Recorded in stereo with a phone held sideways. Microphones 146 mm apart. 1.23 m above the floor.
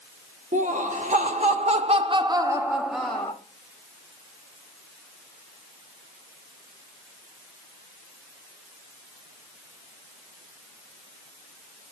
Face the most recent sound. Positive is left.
turn(degrees=15)  # may be behind; listen again after turning